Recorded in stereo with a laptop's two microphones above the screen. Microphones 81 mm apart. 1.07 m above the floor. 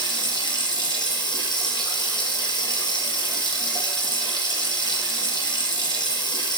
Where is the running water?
65° left (ahead or behind), 3.5 m.